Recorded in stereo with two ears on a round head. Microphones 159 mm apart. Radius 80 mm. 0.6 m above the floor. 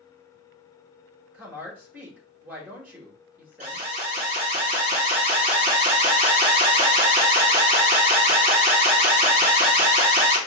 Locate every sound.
1.3 s a woman speaking: 10° right (ahead or behind), 1.4 m
3.6 s an alarm: 35° right (ahead or behind), 1.4 m